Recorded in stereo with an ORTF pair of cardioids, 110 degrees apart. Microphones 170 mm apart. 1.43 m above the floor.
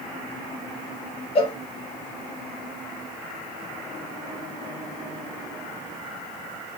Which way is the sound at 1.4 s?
35° left.